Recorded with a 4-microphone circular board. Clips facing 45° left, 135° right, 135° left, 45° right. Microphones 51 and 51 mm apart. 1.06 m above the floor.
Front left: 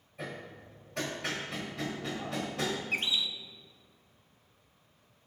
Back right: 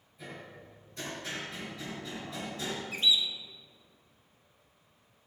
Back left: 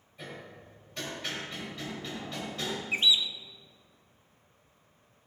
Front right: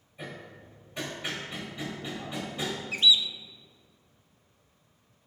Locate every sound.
0.2 s hammering: 30° left, 3.5 m
2.9 s a bird: 75° left, 0.6 m